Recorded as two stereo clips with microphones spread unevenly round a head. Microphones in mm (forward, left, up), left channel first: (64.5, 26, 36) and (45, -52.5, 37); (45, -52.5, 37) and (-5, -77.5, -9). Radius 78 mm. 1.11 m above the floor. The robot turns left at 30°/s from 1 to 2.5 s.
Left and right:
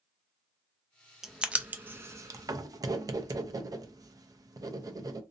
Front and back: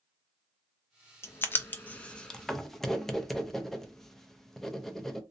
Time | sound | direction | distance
1.2 | writing | 20° right | 0.5 m